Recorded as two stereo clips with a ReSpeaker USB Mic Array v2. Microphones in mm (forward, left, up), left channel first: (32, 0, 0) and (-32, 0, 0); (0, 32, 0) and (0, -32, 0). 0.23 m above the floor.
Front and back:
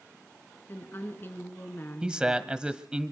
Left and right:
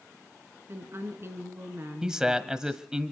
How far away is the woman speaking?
About 3 m.